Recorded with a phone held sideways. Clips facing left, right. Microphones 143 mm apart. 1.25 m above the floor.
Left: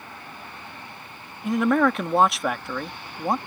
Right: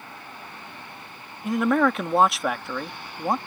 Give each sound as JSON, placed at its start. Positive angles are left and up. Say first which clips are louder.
{"t": 1.4, "sound": "a man speaking", "louder": "left 1 dB", "side_deg": 0}